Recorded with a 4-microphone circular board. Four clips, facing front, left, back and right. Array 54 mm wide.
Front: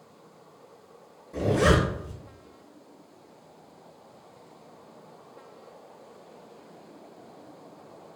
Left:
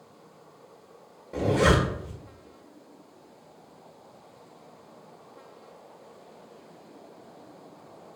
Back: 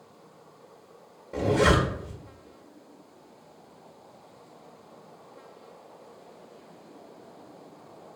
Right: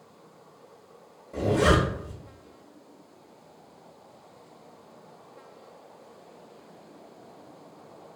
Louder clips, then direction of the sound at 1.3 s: Even, even; 135° left.